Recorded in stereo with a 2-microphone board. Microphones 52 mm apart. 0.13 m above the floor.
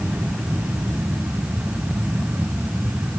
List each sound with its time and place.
Only background noise.